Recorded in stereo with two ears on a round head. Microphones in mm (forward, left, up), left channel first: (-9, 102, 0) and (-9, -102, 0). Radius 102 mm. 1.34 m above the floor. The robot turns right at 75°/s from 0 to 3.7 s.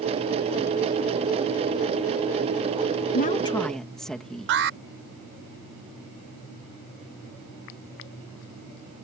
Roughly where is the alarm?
Right.